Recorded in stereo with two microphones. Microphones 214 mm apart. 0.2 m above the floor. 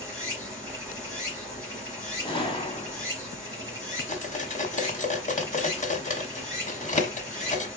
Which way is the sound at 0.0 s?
15° right (ahead or behind).